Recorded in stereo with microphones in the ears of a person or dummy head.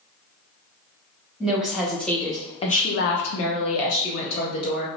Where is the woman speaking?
5° right (ahead or behind), 1.2 m; by 4.9 s 55° left (ahead or behind), 1.4 m.